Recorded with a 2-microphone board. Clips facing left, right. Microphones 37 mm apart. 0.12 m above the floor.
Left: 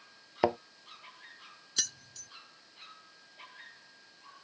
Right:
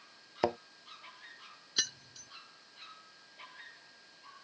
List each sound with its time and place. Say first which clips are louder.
0.4 s a thud: left 3 dB; 15° left (ahead or behind)
1.8 s keys jangling: right 2 dB; 15° right (ahead or behind)